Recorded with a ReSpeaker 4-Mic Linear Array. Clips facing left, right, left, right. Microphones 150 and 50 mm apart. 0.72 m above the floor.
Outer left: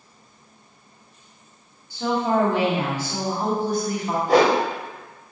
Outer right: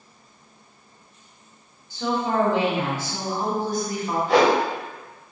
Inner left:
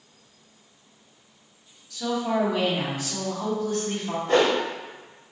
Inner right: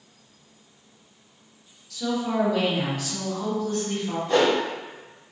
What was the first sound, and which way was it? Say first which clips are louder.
A woman speaking: outer left 2 dB, inner left 1 dB; 10° left (ahead or behind).